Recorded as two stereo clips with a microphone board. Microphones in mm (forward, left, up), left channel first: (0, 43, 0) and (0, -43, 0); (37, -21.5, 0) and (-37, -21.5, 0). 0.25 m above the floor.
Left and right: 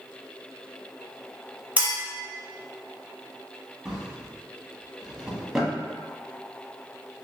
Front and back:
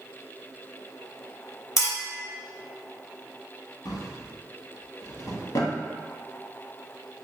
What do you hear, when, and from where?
1.8 s a clink: 20° right, 1.0 m
3.9 s a drawer: 5° right, 0.6 m